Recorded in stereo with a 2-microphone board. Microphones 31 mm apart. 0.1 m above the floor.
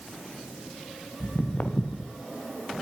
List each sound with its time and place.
1.2 s footsteps: 80° left, 1.5 m